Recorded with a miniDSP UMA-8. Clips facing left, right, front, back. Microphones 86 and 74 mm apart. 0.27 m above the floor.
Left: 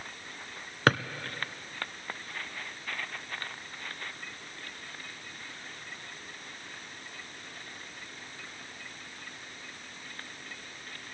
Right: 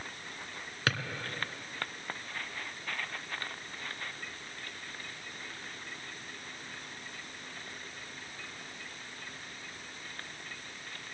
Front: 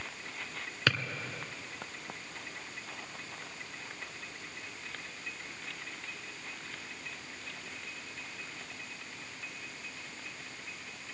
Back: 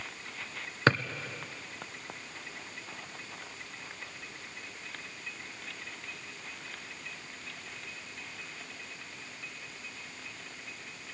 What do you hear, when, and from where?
0.9 s a drawer: 130° left, 0.9 m